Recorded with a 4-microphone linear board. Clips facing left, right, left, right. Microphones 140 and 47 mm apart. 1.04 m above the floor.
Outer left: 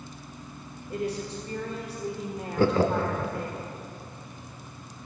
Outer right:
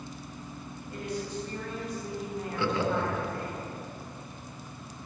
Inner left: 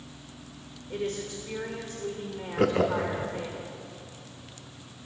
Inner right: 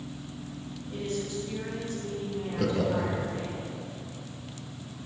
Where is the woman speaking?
30° left (ahead or behind), 1.2 m.